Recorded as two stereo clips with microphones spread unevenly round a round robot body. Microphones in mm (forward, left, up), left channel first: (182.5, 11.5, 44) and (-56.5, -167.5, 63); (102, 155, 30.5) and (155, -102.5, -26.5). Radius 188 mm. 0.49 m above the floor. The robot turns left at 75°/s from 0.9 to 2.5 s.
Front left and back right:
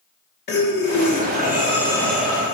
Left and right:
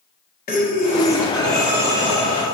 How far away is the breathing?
About 1.2 m.